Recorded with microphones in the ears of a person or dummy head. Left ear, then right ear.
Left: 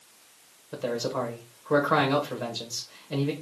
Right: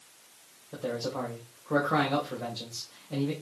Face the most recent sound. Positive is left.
turn(degrees=60)  # may be behind; listen again after turning